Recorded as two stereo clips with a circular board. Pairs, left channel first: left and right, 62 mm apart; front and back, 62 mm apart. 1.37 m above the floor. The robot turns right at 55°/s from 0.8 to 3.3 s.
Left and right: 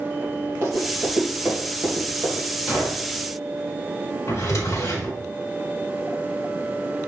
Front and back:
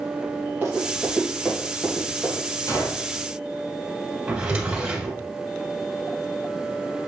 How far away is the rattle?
I don't hear a rattle.